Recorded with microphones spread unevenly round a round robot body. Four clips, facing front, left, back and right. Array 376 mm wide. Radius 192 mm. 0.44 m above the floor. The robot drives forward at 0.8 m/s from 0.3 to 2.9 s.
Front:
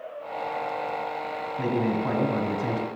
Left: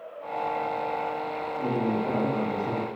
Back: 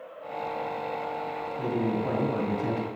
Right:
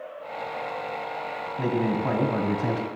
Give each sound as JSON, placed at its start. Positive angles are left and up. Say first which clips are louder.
{"t": 1.6, "sound": "a man speaking", "louder": "right 2 dB, front 2 dB", "azimuth_deg": -55, "distance_m": 2.5}